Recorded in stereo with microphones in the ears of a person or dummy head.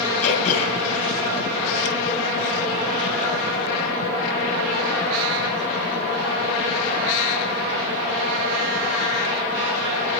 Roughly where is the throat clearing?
Left.